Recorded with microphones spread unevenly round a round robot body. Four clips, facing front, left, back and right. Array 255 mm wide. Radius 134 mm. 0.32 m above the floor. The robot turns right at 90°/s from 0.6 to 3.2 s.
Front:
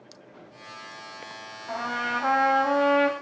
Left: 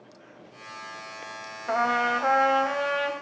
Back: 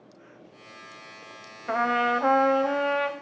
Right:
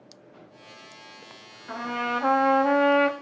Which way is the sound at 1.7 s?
145° left.